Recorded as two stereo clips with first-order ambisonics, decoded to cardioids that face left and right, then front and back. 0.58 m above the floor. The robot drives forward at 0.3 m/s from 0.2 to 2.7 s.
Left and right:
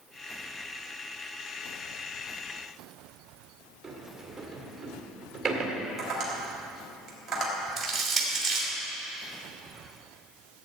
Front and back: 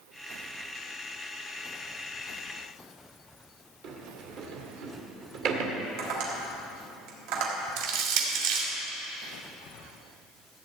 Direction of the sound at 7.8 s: 175° right.